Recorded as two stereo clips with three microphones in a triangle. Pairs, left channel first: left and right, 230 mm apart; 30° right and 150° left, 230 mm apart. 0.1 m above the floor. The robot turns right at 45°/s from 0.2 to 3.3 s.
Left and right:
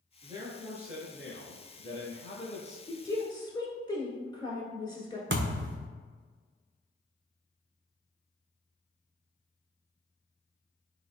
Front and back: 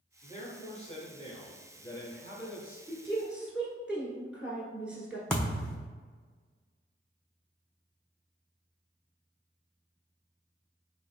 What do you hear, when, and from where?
0.2 s a man speaking: 40° right, 1.2 m; by 2.8 s 75° left, 1.2 m
2.9 s a woman speaking: 55° left, 1.1 m; by 5.2 s 75° left, 1.1 m
5.3 s a thud: 115° right, 0.7 m